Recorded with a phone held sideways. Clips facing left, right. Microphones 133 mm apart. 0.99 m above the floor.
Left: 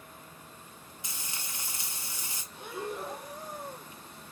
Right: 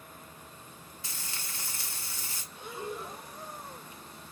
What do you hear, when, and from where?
1.0 s frying: 20° left (ahead or behind), 1.4 m
2.5 s breathing: 65° left (ahead or behind), 2.5 m